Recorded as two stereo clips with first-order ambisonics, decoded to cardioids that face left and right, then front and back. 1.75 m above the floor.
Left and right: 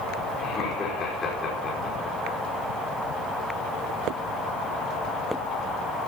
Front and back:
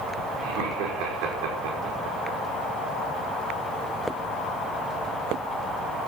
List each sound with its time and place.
0.4 s laughter: 160° left, 5.5 m